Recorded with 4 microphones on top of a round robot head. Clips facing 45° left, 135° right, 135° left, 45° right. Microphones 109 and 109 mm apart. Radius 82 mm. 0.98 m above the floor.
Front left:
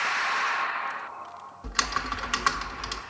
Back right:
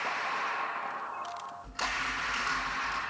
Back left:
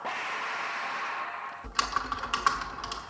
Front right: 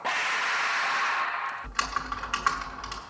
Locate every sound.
1.6 s typing on a keyboard: 60° left, 1.1 m